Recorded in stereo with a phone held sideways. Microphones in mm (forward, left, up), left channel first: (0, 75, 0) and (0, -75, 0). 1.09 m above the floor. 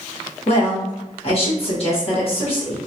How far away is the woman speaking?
About 1.1 m.